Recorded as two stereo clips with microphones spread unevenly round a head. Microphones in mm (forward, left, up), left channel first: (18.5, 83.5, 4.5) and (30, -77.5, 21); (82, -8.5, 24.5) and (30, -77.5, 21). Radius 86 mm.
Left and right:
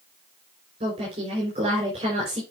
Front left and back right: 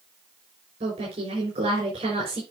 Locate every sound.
0.8 s a woman speaking: 145° right, 5.5 m